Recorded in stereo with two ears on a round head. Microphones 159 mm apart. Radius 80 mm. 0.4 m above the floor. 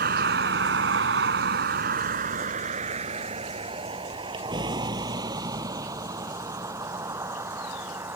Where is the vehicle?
55° right (ahead or behind); by 8.2 s 15° right (ahead or behind).